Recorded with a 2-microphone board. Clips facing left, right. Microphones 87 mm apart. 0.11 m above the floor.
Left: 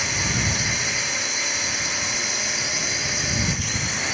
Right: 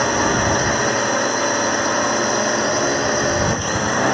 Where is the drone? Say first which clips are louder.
Right 10 dB; 50° right (ahead or behind).